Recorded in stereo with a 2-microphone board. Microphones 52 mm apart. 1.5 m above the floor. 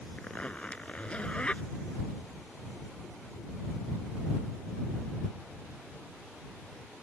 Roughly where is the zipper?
Left.